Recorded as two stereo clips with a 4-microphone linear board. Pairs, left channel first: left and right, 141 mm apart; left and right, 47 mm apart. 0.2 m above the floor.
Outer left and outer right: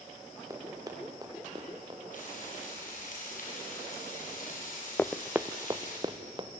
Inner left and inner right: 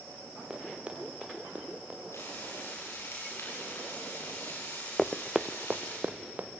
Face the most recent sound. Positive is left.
turn(degrees=-35)  # may be behind; listen again after turning